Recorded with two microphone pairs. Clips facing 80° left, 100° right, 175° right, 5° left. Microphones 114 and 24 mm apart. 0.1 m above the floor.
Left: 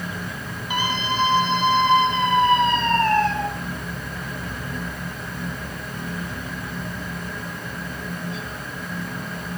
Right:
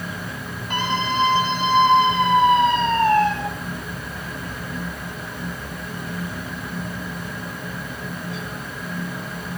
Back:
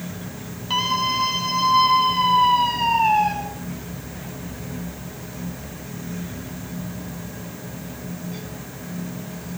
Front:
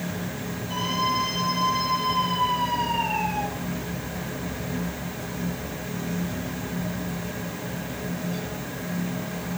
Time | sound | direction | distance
0.7 | a scream | 160° left | 4 m